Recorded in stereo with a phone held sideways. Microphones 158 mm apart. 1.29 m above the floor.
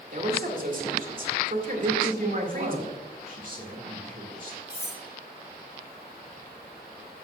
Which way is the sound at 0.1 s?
55° right (ahead or behind).